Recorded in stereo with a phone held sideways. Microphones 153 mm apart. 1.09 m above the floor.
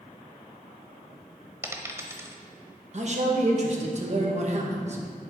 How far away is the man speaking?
About 1.5 m.